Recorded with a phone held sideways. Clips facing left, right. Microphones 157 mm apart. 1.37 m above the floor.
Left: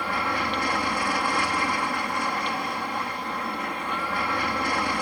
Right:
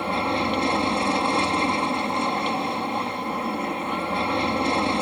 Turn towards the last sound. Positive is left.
turn(degrees=-25)  # may be behind; listen again after turning